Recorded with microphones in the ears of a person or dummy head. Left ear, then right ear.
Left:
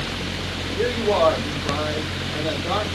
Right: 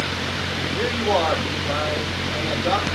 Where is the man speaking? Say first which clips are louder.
Left 2 dB; 60° right (ahead or behind), 5.5 m.